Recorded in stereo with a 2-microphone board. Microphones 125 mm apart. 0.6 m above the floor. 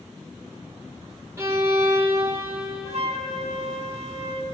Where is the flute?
55° right (ahead or behind), 1.0 m.